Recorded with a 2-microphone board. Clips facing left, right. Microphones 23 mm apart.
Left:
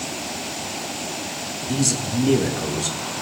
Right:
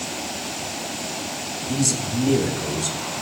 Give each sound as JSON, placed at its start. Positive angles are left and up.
{"t": 1.7, "sound": "a man speaking", "side_deg": 5, "distance_m": 2.5}